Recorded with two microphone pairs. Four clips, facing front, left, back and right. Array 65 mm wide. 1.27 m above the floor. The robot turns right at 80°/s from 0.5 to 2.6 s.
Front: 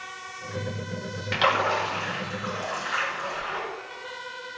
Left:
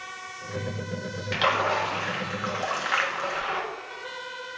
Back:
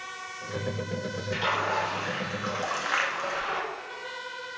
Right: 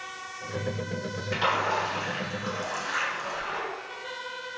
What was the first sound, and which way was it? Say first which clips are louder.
A splash: left 2 dB, front 5 dB; 15° left.